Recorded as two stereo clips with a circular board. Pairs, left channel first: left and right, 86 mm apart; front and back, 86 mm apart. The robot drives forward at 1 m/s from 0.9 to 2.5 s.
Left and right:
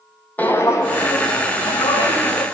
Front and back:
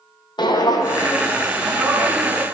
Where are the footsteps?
20° left, 0.7 m; by 2.5 s 120° left, 1.8 m.